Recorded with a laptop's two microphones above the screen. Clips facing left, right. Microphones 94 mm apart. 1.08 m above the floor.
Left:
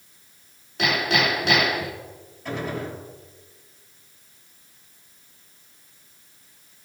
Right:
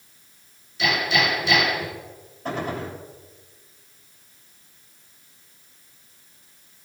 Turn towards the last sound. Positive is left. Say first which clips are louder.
# right 1 dB
turn(degrees=-40)  # may be behind; listen again after turning